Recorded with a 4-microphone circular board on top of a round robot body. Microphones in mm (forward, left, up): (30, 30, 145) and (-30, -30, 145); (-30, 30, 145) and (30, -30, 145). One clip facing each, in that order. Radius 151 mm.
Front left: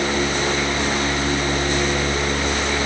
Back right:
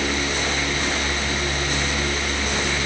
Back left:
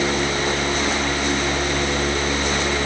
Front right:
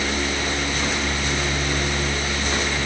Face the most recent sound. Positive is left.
No sound to turn to.